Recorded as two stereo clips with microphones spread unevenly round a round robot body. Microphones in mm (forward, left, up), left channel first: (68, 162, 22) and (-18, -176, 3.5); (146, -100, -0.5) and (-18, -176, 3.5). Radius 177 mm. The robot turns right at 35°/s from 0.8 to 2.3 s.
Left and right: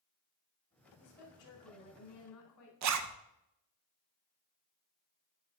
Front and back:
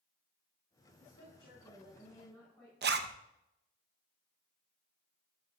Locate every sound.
1.0 s a woman speaking: 60° left, 3.5 m; by 2.7 s 105° left, 3.5 m
2.8 s a zipper: 140° right, 0.6 m